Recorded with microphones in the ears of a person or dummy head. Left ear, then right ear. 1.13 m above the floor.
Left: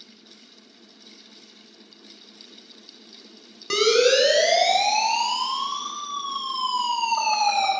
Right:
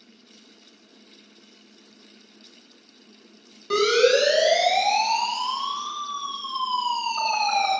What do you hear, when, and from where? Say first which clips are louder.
3.7 s a siren: left 1 dB; 80° left, 7 m; by 7.7 s 75° left (ahead or behind), 7 m